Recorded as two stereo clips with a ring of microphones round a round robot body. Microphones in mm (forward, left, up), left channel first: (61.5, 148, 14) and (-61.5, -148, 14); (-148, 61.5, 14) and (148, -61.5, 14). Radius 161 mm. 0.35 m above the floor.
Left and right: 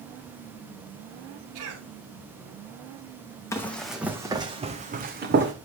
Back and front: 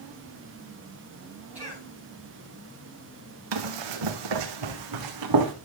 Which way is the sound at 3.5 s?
15° right.